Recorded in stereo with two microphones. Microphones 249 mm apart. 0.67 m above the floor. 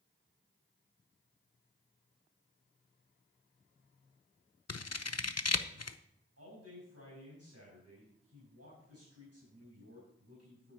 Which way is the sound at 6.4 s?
70° right (ahead or behind).